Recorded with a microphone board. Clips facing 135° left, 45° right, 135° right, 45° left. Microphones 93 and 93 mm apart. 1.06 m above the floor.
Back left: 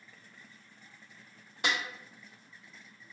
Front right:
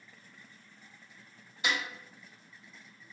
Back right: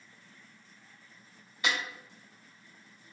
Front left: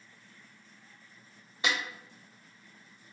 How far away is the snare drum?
About 1.6 m.